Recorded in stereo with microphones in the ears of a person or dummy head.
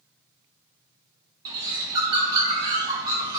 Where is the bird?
20° right (ahead or behind), 0.8 m.